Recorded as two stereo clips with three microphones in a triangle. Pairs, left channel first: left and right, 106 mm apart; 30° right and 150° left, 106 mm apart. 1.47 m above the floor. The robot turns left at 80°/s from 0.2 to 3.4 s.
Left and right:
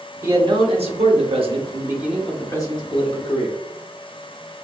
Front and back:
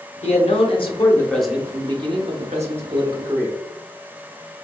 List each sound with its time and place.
0.2 s a man speaking: 20° right, 0.9 m; by 3.6 s 85° left, 0.9 m